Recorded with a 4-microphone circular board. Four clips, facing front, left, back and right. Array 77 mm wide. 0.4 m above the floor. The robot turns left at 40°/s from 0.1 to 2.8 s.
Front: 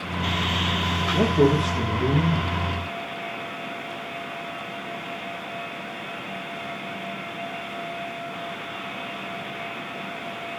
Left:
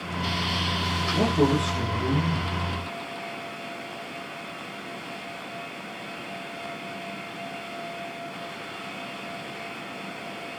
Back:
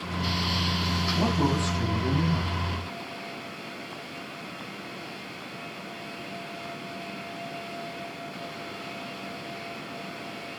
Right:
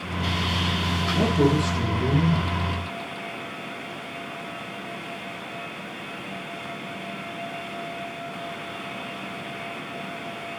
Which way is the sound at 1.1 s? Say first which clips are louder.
Right 1 dB, front 7 dB; 20° left.